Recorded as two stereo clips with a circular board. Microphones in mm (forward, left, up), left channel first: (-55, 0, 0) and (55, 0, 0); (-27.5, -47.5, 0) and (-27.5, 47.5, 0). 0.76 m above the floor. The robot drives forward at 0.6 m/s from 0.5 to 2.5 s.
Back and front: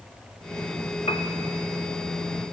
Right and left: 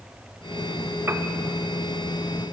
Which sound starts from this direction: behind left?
A piano, at 1.1 s.